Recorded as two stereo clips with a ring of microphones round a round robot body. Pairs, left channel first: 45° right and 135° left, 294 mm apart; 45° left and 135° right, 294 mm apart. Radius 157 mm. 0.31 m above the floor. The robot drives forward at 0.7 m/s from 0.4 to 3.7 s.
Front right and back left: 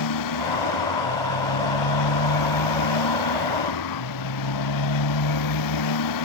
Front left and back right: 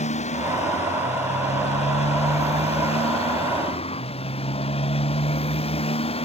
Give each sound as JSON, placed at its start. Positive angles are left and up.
{"t": 0.0, "sound": "a motorcycle", "azimuth_deg": -25}